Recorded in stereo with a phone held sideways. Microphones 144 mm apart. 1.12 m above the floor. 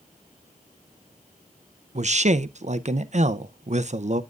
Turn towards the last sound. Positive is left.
turn(degrees=-50)  # may be behind; listen again after turning